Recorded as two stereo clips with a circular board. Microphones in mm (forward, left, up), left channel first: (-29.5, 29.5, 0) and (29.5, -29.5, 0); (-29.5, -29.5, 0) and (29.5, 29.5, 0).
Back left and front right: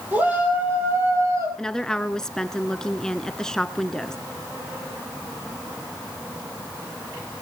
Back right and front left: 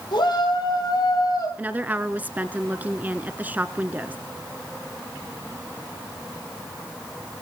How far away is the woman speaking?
About 1.1 m.